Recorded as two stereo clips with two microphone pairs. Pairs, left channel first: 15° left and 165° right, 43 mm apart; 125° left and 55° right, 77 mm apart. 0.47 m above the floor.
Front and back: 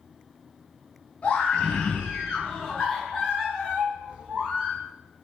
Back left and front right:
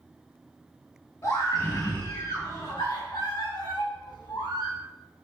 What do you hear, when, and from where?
1.2 s a scream: 80° left, 4 m; by 4.8 s 145° left, 4 m